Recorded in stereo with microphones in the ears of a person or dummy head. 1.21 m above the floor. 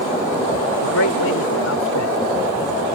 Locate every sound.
0.8 s a man speaking: 75° left (ahead or behind)